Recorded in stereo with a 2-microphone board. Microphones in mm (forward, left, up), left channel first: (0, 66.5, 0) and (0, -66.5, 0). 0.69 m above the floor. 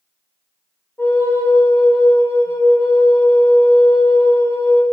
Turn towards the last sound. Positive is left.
turn(degrees=20)  # may be behind; listen again after turning